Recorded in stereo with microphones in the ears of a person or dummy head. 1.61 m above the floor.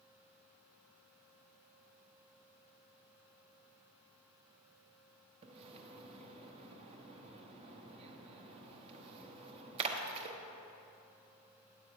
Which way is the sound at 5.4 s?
30° right (ahead or behind).